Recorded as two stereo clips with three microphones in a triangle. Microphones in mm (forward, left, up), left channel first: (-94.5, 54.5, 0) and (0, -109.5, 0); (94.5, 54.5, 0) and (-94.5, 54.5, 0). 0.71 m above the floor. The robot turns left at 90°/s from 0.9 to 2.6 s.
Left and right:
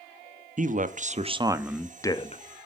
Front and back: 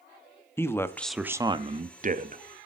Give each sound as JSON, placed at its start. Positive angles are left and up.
{"t": 0.6, "sound": "a man speaking", "azimuth_deg": -70, "distance_m": 0.7}